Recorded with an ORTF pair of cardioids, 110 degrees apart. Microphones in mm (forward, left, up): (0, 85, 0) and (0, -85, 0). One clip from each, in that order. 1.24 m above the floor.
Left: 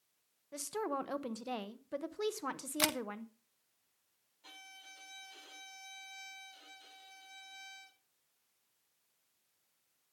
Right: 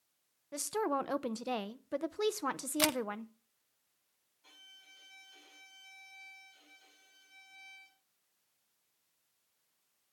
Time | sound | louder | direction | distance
0.5 | a woman speaking | right 4 dB | 20° right | 0.8 m
2.8 | a camera shutter | right 2 dB | 5° right | 0.5 m
4.4 | a violin | left 4 dB | 45° left | 6.5 m